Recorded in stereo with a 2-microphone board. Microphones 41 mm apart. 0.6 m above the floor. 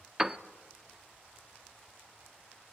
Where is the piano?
15° right (ahead or behind), 0.8 m.